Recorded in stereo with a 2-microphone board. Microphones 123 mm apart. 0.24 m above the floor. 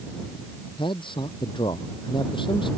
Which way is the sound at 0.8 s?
40° left (ahead or behind).